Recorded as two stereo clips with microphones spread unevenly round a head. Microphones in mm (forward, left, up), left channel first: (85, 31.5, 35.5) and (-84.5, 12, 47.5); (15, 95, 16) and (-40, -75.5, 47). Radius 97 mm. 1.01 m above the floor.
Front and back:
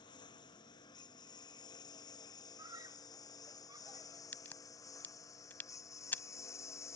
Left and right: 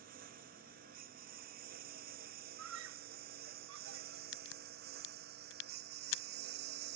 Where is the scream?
105° right.